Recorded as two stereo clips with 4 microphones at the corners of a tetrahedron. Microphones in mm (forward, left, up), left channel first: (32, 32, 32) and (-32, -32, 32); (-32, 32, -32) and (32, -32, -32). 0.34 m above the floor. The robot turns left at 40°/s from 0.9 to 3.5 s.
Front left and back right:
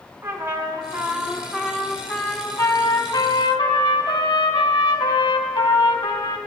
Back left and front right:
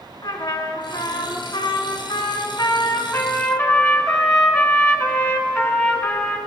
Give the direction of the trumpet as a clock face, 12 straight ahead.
7 o'clock.